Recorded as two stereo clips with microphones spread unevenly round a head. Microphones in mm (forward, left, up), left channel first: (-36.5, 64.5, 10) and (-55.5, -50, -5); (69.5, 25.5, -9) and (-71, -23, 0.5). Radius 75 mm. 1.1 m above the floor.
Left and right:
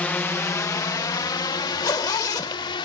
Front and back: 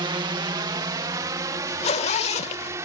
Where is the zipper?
45° left.